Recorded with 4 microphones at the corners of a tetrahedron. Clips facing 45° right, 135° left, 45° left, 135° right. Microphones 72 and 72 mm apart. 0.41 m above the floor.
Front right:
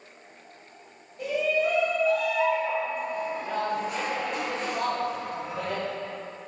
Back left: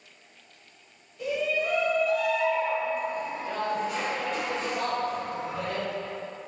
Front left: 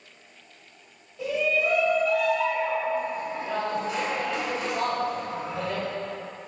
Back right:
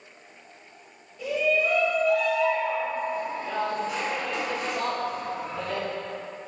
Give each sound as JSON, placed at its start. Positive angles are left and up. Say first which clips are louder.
{"t": 1.2, "sound": "a shout", "louder": "front right 3 dB, back right 1 dB", "azimuth_deg": -15, "distance_m": 1.8}